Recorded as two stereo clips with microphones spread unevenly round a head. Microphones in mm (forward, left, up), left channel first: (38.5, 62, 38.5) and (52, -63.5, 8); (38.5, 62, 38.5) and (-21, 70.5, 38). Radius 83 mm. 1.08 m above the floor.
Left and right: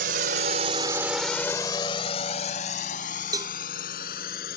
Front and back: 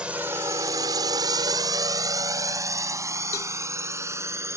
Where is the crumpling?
I don't hear crumpling.